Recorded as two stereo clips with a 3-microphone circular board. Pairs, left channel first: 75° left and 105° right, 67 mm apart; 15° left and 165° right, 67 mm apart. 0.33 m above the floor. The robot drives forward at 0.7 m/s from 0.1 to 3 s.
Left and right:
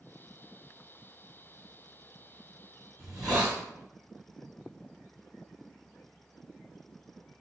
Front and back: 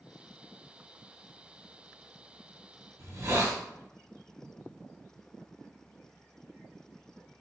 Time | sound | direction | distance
3.0 | a hiss | 165° left | 1.9 m